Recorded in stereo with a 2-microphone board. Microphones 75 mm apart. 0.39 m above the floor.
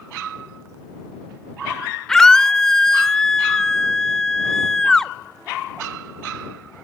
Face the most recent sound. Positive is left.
turn(degrees=5)  # may be behind; listen again after turning